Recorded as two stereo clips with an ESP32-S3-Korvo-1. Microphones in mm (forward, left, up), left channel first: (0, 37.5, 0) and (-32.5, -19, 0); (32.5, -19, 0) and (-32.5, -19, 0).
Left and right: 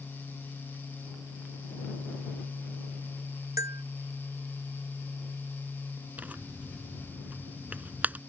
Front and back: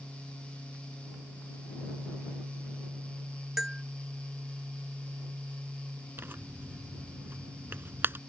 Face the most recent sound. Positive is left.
turn(degrees=-165)